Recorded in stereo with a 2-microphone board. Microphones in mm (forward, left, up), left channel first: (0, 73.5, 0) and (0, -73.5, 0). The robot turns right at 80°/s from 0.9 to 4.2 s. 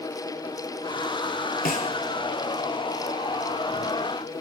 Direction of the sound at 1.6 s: 75° left (ahead or behind).